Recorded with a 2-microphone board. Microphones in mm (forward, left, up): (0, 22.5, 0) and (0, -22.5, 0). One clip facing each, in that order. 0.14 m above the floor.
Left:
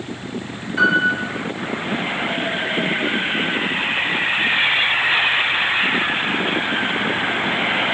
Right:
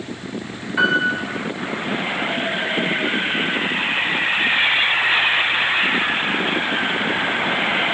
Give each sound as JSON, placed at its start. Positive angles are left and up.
{"t": 0.8, "sound": "a piano", "side_deg": -15, "distance_m": 0.6}